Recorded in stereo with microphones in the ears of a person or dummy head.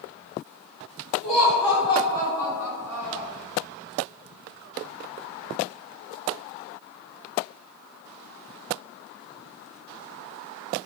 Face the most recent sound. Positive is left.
turn(degrees=15)  # may be behind; listen again after turning